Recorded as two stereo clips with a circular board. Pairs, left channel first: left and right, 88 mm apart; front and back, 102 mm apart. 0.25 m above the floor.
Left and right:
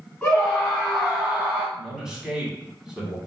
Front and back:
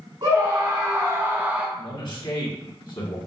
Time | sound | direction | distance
0.2 | a scream | 165° left | 1.9 m
1.8 | a man speaking | 10° right | 1.6 m